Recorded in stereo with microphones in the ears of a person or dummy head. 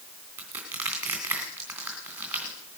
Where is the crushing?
5° right (ahead or behind), 2.5 m.